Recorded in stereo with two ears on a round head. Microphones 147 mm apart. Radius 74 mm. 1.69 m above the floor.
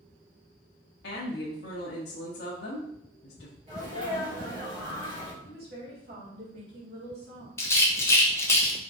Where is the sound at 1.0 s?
70° left (ahead or behind), 0.7 m.